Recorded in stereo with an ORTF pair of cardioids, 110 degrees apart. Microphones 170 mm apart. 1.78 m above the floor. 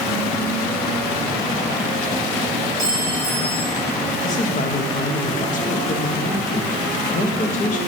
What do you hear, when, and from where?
2.8 s a clink: 25° left, 2.5 m
4.2 s a man speaking: 50° left, 1.5 m